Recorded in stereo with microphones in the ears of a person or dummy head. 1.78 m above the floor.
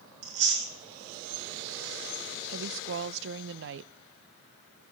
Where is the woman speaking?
70° right (ahead or behind), 0.6 m.